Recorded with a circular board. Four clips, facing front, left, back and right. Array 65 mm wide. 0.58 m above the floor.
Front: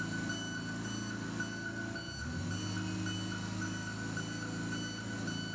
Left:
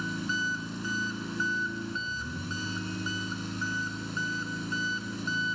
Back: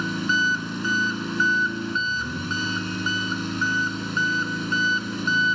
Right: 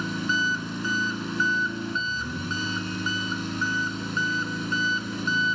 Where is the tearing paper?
I don't hear tearing paper.